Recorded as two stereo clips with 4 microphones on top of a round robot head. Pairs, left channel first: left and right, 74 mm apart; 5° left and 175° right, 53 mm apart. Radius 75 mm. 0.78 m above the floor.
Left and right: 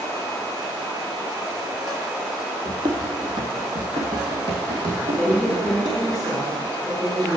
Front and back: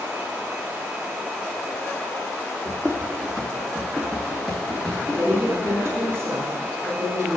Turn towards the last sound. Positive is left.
turn(degrees=170)